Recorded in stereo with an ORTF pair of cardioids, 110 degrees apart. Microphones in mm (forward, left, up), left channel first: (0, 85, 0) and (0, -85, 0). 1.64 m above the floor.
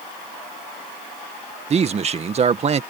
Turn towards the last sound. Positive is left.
turn(degrees=-40)